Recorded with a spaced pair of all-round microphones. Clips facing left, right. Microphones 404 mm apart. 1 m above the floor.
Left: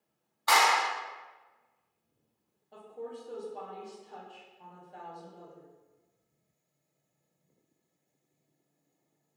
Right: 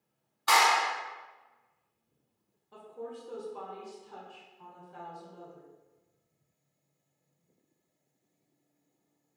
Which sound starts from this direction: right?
A clap, at 0.5 s.